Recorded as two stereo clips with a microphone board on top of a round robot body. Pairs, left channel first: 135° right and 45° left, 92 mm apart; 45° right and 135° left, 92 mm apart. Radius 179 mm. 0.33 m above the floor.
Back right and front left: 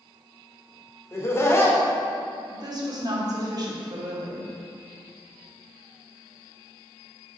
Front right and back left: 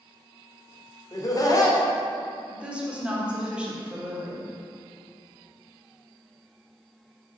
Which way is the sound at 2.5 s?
60° left.